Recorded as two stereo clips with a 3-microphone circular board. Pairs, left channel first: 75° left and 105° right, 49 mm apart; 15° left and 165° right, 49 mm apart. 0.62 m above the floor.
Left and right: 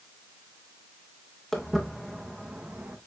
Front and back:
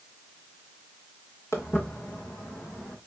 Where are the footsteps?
10° right, 3 m; by 3.0 s 55° right, 3 m.